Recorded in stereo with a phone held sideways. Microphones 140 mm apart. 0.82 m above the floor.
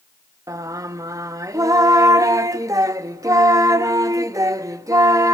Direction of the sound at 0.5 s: 25° right (ahead or behind).